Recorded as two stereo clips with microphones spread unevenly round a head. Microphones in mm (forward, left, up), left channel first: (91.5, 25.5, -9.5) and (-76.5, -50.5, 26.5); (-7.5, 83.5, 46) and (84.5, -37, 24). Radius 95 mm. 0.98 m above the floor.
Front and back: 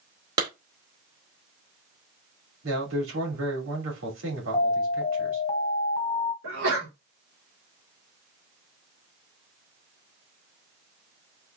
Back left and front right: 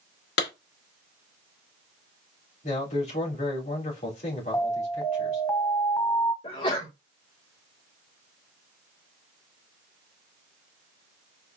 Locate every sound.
0.4 s a clap: 135° left, 2.5 m
2.6 s a man speaking: straight behind, 3 m
4.5 s an alarm: 55° left, 1.7 m
6.4 s a sneeze: 175° right, 2.5 m